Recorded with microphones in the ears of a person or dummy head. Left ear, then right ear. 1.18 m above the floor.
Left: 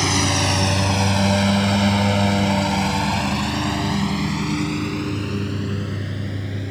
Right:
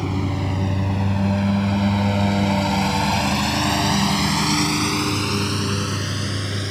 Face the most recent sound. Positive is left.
turn(degrees=-45)  # may be behind; listen again after turning